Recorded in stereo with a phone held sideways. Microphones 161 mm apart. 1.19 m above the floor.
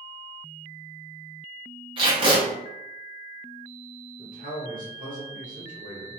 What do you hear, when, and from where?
2.0 s tape being pulled: 30° right (ahead or behind), 1.0 m
4.2 s a man speaking: 60° right (ahead or behind), 1.1 m